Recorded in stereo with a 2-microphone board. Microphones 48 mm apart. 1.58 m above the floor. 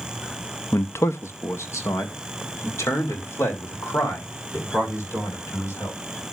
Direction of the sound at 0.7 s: 60° left (ahead or behind).